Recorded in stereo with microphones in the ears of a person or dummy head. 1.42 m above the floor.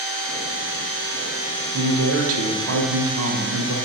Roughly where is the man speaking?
Right.